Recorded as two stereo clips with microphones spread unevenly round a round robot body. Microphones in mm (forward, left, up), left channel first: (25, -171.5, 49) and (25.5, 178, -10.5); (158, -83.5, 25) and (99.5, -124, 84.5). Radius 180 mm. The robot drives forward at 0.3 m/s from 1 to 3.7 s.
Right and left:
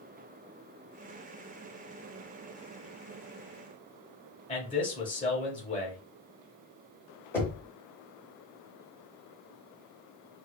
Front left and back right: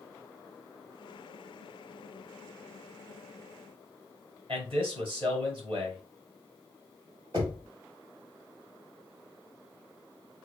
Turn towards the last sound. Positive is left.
turn(degrees=175)